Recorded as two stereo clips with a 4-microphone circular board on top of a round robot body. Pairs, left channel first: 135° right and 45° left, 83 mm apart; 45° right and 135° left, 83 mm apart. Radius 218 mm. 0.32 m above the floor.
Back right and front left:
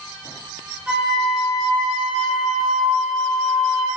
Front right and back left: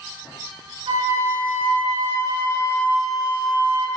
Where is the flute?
125° left, 5.5 m.